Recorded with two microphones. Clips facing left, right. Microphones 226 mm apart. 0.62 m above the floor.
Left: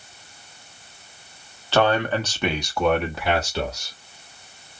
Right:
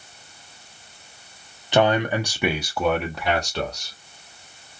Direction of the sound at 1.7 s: 20° right (ahead or behind).